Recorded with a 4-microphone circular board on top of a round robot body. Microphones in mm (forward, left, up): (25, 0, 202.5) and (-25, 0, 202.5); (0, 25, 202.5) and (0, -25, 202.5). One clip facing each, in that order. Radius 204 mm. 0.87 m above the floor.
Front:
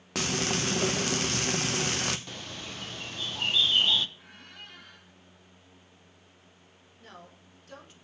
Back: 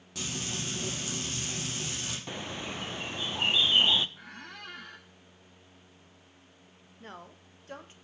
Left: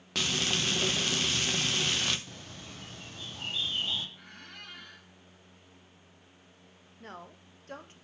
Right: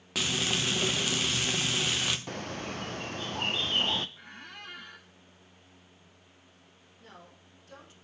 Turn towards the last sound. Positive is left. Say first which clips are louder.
# back 3 dB, left 6 dB
turn(degrees=130)